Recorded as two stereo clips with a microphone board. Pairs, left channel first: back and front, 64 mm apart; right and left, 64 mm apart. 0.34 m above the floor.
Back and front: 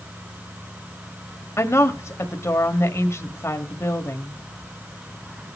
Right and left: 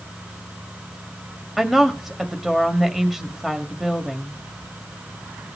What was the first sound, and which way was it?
A woman speaking, 175° left.